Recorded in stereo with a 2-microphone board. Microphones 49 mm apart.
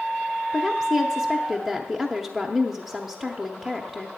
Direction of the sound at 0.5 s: Centre (ahead or behind).